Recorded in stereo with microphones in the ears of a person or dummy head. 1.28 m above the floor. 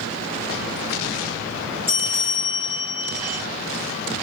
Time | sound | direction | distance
1.9 | a bell | 10° right (ahead or behind) | 1.3 m